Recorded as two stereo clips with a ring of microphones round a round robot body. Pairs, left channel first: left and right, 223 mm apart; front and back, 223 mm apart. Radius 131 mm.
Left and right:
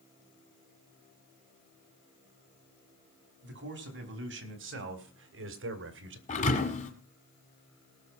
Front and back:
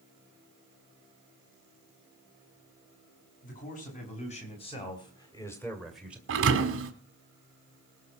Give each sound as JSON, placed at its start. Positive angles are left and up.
{"t": 3.4, "sound": "a man speaking", "azimuth_deg": -55, "distance_m": 5.0}
{"t": 6.3, "sound": "a thud", "azimuth_deg": 150, "distance_m": 1.8}